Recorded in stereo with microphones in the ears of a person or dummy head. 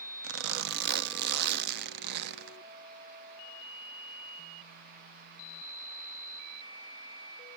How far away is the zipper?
About 0.6 m.